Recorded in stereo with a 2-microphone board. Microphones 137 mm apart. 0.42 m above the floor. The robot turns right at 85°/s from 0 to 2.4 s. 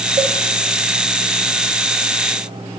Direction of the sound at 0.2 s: 50° right (ahead or behind).